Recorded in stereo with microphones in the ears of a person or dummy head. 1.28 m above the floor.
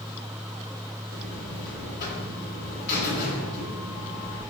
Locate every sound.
1.1 s a buzzer: 55° left (ahead or behind), 2 m